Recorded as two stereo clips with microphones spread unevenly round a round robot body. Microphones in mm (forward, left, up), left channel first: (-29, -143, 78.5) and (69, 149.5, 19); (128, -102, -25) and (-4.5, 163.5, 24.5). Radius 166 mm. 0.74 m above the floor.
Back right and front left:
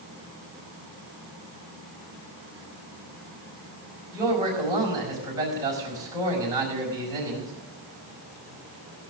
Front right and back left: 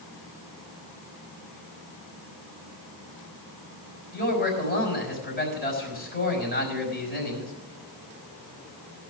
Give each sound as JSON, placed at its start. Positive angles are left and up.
{"t": 4.1, "sound": "a man speaking", "azimuth_deg": -5, "distance_m": 5.0}